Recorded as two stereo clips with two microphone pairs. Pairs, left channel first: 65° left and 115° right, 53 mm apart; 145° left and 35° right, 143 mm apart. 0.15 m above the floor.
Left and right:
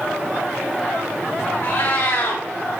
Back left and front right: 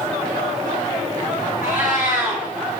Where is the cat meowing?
35° left, 4 m.